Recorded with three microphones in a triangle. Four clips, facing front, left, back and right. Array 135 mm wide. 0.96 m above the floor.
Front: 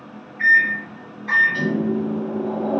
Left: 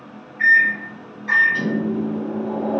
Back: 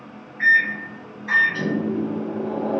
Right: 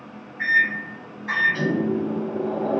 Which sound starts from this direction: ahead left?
A microwave, at 0.4 s.